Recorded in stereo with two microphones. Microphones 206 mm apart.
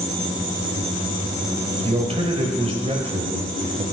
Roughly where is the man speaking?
Right.